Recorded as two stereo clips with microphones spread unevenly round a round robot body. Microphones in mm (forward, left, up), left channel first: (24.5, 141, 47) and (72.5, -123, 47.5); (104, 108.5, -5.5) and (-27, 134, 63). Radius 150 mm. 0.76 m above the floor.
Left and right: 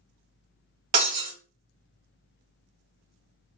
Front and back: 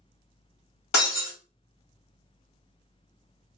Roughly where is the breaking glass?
Ahead right.